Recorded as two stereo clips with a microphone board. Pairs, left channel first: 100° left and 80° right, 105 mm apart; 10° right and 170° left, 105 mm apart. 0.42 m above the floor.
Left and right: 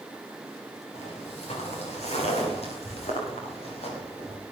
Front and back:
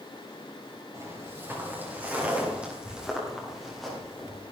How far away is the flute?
I don't hear a flute.